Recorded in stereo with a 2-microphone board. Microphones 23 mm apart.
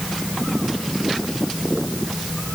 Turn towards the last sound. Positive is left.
No sound to turn to.